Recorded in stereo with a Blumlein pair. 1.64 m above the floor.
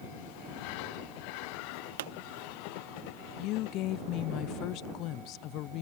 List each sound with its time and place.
2.0 s a pop: 55° right
3.4 s a woman speaking: 35° left